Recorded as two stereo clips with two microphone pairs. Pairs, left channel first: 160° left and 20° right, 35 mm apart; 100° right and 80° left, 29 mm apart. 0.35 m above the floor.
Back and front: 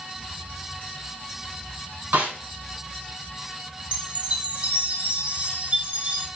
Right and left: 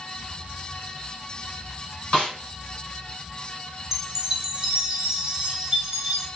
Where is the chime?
15° left, 0.6 m.